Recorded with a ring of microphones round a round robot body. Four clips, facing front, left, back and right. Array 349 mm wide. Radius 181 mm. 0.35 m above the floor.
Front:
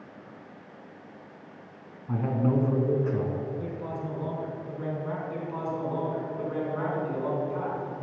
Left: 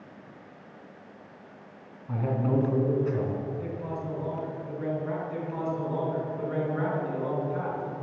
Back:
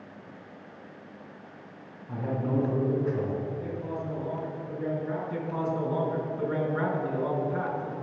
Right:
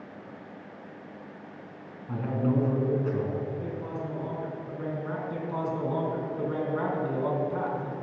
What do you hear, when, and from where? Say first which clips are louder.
2.1 s a man speaking: even, front 3 dB; 10° right, 3.5 m
3.6 s a man speaking: even, even; 25° right, 4 m
5.3 s a man speaking: even, back 2 dB; 110° right, 3.5 m